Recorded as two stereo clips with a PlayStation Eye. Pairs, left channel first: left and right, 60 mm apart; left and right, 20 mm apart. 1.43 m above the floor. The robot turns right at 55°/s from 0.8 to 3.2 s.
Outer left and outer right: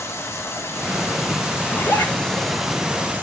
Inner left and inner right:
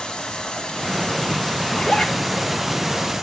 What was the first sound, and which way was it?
Running water, 85° left.